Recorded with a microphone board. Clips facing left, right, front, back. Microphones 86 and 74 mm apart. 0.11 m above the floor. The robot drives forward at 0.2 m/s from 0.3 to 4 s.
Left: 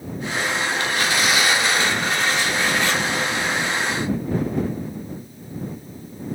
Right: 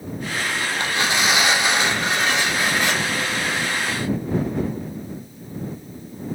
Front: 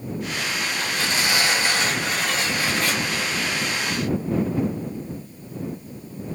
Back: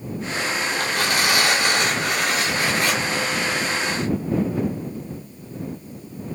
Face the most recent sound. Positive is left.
turn(degrees=-165)